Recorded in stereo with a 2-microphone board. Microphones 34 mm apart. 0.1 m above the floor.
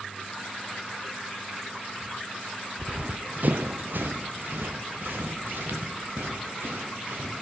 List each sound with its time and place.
2.8 s running footsteps: 25° right (ahead or behind), 0.7 m; by 7.3 s 85° right, 3.5 m